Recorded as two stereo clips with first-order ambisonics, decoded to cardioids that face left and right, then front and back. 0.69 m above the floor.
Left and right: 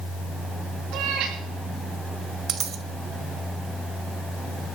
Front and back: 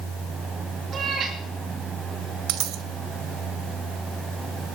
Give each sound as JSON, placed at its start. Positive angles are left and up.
{"t": 0.9, "sound": "a cat meowing", "azimuth_deg": -120, "distance_m": 4.0}
{"t": 2.5, "sound": "a dropped coin", "azimuth_deg": -150, "distance_m": 1.0}